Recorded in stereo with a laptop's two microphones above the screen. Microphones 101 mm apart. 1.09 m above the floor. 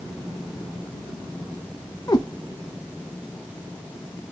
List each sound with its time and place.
2.1 s a cat meowing: 45° left (ahead or behind), 0.6 m